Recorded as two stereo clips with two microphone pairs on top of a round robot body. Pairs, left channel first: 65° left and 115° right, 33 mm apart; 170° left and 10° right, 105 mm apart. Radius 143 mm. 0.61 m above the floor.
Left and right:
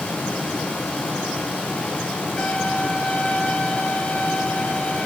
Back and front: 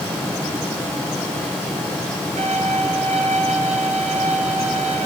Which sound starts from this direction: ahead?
A violin, at 2.4 s.